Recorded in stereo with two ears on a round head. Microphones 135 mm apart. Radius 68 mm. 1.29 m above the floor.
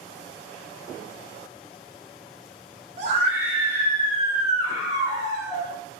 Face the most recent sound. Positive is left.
turn(degrees=-25)  # may be behind; listen again after turning